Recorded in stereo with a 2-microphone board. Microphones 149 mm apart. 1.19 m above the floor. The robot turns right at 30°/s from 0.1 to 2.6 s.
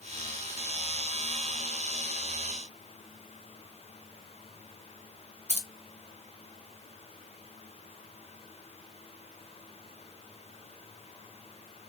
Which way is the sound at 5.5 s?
45° right (ahead or behind).